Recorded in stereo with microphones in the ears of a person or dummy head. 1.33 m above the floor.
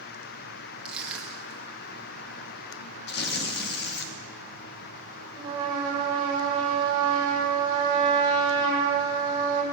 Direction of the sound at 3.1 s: 60° left (ahead or behind).